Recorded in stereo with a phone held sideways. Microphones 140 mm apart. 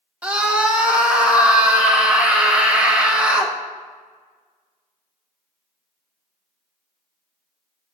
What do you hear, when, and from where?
0.2 s a scream: 10° right (ahead or behind), 1.1 m